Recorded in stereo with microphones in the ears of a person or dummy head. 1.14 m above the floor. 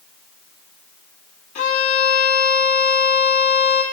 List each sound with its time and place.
1.6 s a violin: 35° left (ahead or behind), 0.8 m